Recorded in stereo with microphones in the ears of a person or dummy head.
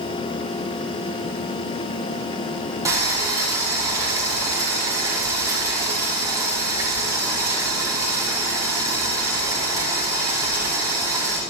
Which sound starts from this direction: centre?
Boiling, at 2.9 s.